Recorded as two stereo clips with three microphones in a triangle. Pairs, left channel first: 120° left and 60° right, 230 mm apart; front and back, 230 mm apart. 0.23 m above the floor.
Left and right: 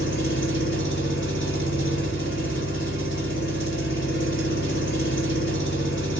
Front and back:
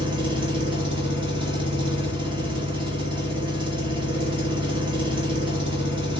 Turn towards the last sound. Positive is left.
turn(degrees=115)